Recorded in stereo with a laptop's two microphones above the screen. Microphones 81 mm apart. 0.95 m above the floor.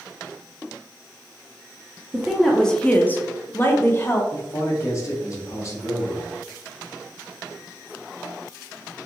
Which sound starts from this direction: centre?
A woman speaking, at 2.1 s.